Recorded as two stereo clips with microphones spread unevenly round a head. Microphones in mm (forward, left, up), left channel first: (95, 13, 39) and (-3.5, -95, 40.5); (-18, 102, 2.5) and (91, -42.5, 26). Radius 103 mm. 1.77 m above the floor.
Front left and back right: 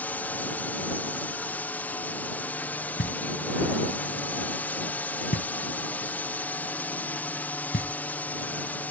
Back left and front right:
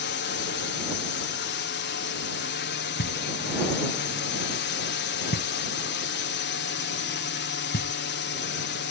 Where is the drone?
125° left.